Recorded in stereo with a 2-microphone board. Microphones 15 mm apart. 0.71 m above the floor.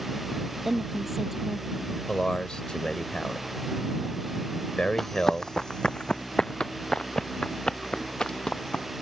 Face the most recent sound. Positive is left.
turn(degrees=70)  # may be behind; listen again after turning